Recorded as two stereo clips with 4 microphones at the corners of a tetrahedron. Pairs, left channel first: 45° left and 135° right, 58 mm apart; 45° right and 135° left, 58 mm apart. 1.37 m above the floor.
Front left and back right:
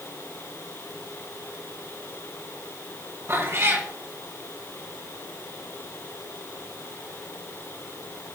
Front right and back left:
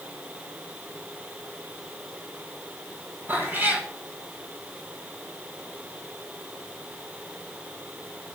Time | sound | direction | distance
3.3 | a cat meowing | 170° right | 3 m